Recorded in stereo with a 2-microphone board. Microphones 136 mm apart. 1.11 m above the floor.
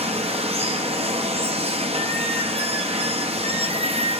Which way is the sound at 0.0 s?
45° right (ahead or behind).